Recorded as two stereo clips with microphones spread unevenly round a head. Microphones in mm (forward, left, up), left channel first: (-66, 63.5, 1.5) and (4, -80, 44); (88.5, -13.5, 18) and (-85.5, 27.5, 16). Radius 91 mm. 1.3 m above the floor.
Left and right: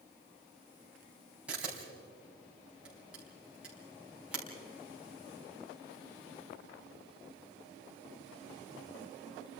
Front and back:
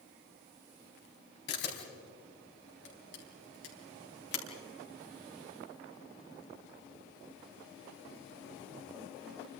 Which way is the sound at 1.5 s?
20° left.